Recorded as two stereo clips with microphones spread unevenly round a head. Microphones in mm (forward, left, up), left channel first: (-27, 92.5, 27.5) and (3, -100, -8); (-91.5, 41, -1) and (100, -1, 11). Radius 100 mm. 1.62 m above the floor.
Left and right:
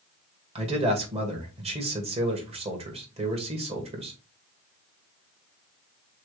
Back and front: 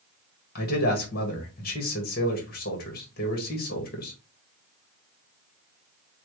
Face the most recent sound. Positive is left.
turn(degrees=-145)